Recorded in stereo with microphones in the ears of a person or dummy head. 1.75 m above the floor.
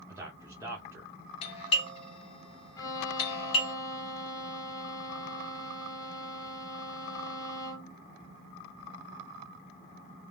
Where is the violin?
20° left (ahead or behind), 0.9 m.